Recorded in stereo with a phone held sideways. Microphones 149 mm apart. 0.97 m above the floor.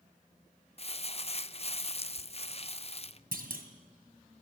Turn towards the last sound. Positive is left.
turn(degrees=-75)  # may be behind; listen again after turning